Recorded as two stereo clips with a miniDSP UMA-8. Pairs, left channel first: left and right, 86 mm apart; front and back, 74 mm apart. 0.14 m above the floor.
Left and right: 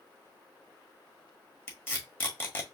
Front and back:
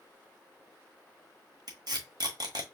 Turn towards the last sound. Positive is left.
turn(degrees=155)